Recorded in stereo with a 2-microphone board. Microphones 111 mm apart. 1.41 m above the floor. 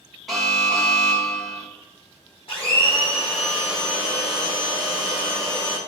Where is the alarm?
Centre (ahead or behind), 1.9 m.